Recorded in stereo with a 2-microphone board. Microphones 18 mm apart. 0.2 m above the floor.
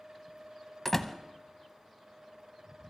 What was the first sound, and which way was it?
A door slam, 15° left (ahead or behind).